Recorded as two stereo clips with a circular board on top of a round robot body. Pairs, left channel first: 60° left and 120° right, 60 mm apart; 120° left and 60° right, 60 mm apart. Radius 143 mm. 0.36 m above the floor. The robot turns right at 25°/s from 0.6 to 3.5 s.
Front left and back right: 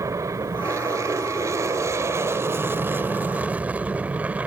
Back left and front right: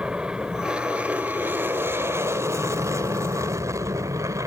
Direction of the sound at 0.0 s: 130° right.